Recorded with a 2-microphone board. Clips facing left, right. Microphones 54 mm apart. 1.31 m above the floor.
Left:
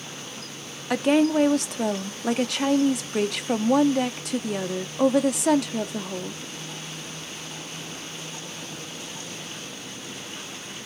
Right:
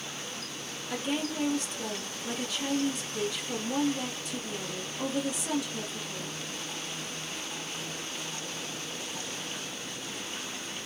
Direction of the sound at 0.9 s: 70° left (ahead or behind).